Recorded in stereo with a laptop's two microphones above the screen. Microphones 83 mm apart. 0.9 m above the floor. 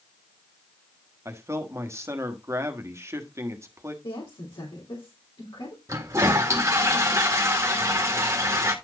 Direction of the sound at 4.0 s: 70° left (ahead or behind).